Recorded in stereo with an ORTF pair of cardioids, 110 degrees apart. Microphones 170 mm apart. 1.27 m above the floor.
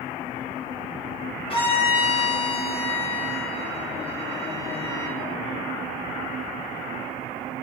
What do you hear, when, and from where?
1.5 s a violin: 30° left, 2 m